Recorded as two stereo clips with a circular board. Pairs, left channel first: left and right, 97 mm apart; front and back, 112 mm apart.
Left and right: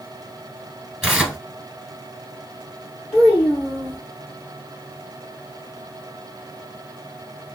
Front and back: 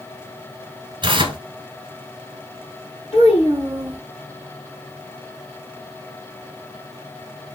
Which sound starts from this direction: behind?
Tearing paper, at 1.0 s.